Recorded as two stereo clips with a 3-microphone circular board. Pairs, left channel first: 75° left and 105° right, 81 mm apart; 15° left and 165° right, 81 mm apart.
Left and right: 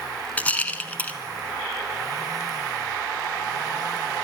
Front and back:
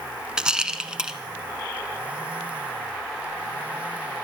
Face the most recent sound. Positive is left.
turn(degrees=125)